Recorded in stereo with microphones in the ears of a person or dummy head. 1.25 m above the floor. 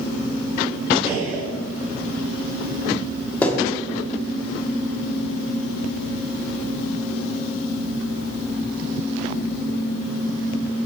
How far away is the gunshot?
About 2.5 m.